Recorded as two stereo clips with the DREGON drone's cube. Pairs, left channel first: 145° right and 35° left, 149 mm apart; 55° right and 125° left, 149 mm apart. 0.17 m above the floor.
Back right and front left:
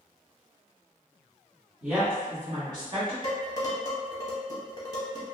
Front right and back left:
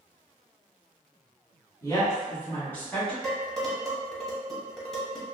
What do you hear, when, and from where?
1.8 s a woman speaking: 40° right, 1.2 m; by 3.1 s 25° left, 1.4 m
3.2 s dishes clattering: 140° right, 0.9 m